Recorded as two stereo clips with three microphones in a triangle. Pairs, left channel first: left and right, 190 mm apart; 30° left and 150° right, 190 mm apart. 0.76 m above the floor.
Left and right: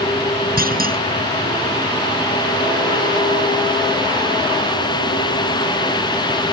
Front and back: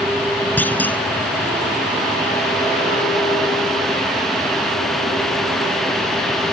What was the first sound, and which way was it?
A clunk, 50° right.